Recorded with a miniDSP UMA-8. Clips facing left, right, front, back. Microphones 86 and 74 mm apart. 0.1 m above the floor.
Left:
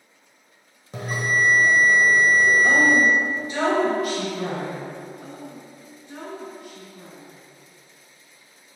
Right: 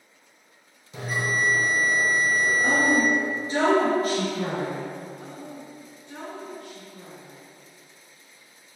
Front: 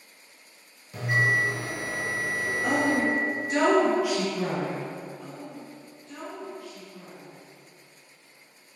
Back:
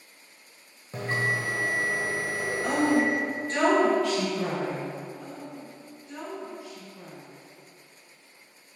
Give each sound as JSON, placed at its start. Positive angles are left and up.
{"t": 0.9, "sound": "a bell", "azimuth_deg": 130, "distance_m": 1.0}
{"t": 2.6, "sound": "a woman speaking", "azimuth_deg": -75, "distance_m": 1.4}
{"t": 5.2, "sound": "a woman speaking", "azimuth_deg": 150, "distance_m": 1.7}